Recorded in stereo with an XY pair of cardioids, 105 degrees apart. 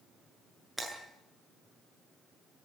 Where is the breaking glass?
Straight ahead, 8 m.